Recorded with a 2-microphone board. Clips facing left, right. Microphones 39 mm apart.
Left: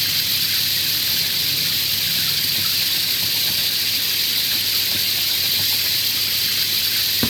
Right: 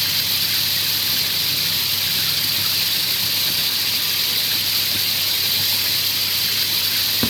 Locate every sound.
0.0 s running water: centre (ahead or behind)